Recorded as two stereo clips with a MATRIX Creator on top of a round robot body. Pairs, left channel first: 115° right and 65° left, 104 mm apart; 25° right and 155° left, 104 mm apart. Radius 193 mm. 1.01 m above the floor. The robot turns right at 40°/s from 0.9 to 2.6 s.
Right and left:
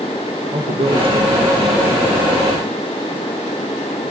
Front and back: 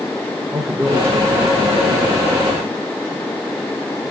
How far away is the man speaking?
About 2.0 m.